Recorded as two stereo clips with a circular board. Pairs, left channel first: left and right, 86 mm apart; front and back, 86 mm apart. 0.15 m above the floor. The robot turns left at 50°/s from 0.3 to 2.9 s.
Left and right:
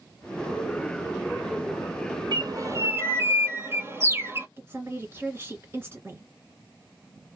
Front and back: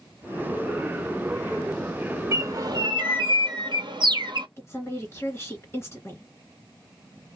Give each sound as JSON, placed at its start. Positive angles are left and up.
{"t": 2.3, "sound": "a bird", "azimuth_deg": -120, "distance_m": 0.9}
{"t": 4.6, "sound": "a woman speaking", "azimuth_deg": -45, "distance_m": 2.0}